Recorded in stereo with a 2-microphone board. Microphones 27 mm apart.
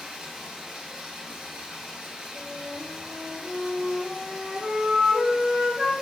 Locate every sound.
0.0 s running water: 35° right (ahead or behind), 0.7 m
2.3 s a flute: 25° right (ahead or behind), 1.0 m